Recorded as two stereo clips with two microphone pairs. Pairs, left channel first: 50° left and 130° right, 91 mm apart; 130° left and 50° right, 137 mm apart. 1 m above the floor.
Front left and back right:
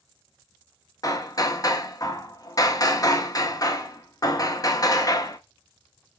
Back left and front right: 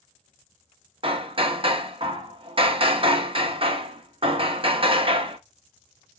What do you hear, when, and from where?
1.0 s hammering: straight ahead, 0.7 m